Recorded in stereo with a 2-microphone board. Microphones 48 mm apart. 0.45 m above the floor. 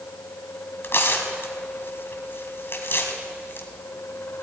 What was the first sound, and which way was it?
Tearing paper, 55° left (ahead or behind).